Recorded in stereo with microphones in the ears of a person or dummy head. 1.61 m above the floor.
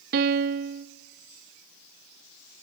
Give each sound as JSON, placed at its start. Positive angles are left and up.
{"t": 0.1, "sound": "a piano", "side_deg": -55, "distance_m": 0.9}